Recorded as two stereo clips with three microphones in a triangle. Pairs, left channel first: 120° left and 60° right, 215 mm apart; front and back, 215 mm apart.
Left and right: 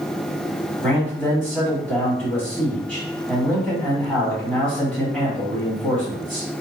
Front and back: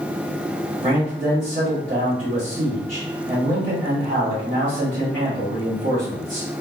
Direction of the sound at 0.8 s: 150° right.